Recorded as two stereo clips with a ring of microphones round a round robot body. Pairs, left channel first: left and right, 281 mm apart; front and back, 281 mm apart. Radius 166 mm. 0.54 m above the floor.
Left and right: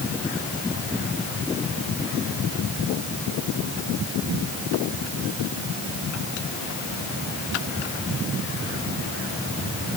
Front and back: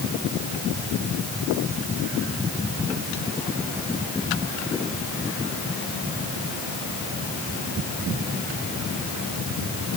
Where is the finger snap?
No finger snap in this recording.